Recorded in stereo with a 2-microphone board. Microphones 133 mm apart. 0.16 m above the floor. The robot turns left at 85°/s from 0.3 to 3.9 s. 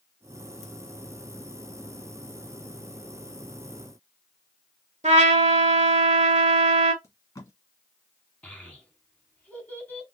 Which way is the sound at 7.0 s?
30° left (ahead or behind).